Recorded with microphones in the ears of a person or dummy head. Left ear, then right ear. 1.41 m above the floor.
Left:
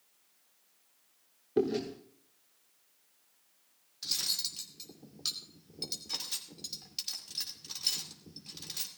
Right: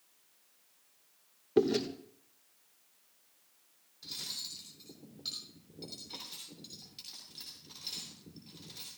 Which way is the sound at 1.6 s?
20° right (ahead or behind).